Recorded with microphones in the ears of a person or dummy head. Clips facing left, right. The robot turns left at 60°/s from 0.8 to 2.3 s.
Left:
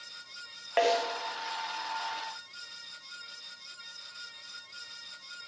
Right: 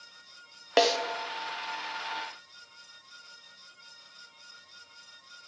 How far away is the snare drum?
About 0.7 m.